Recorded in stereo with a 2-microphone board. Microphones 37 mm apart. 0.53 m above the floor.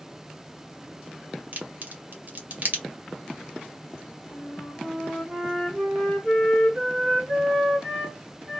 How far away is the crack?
About 0.8 m.